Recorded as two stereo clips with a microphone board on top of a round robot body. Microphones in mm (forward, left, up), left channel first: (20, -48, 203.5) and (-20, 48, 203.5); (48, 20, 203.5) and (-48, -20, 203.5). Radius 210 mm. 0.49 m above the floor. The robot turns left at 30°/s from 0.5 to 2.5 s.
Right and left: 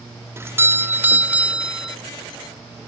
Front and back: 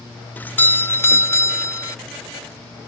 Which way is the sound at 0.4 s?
75° left.